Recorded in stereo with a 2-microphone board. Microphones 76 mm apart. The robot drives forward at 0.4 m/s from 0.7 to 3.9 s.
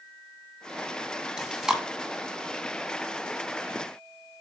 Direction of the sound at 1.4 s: 10° right (ahead or behind).